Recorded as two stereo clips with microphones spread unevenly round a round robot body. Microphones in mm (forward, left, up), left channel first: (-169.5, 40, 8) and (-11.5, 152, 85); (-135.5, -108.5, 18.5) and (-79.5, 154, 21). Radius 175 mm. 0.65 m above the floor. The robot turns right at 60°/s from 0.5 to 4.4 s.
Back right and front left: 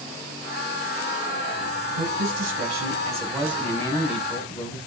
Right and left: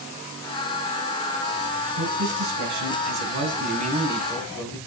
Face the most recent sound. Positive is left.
turn(degrees=175)